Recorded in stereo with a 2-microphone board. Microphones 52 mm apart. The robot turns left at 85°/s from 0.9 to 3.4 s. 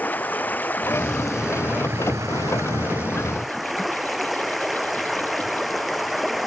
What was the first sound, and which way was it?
Running water, 35° left.